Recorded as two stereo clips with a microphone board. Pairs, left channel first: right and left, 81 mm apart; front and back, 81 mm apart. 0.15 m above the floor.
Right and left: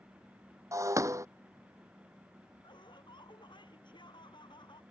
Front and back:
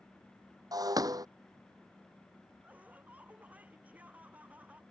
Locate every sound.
0.7 s breaking glass: 140° left
2.6 s laughter: 110° right